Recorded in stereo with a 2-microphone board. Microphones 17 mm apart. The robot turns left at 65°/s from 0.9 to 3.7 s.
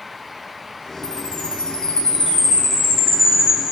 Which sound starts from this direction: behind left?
A chime, at 1.0 s.